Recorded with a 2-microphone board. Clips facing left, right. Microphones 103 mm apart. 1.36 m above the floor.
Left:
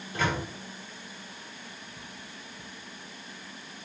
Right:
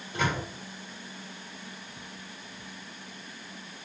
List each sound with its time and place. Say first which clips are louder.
0.1 s a microwave: even; 25° right (ahead or behind), 4 m